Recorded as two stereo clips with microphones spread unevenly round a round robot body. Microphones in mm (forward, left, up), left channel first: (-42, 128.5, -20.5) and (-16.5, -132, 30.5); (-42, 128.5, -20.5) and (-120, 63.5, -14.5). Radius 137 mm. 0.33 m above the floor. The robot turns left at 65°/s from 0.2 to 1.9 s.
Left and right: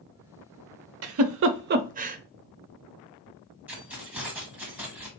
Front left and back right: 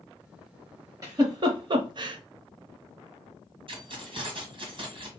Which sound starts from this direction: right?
A giggle, at 1.0 s.